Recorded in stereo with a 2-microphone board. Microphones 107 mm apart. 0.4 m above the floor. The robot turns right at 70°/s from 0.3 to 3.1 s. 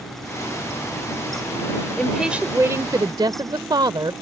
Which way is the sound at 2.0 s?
170° left.